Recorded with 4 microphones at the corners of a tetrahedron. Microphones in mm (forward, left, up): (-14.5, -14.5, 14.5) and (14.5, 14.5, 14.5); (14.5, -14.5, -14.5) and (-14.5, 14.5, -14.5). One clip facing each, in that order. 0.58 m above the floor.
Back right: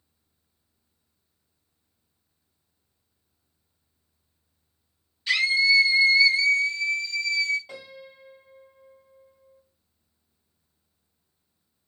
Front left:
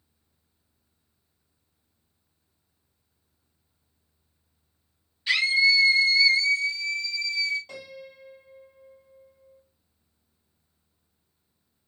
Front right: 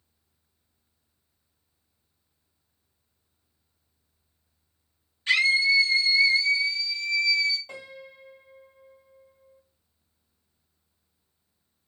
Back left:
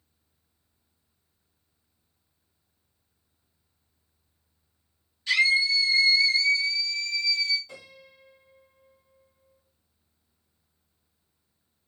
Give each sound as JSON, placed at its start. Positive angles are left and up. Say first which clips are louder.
{"t": 5.3, "sound": "a scream", "louder": "even, front right 1 dB", "azimuth_deg": -30, "distance_m": 0.9}
{"t": 7.7, "sound": "a piano", "louder": "front left 1 dB, front right 5 dB", "azimuth_deg": -60, "distance_m": 1.7}